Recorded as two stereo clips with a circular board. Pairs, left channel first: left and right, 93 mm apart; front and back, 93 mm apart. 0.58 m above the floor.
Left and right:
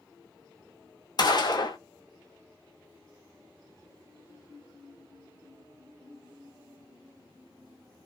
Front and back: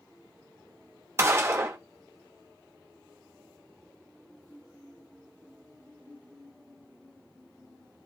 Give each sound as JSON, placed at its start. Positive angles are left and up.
{"t": 1.2, "sound": "a gunshot", "azimuth_deg": 120, "distance_m": 0.8}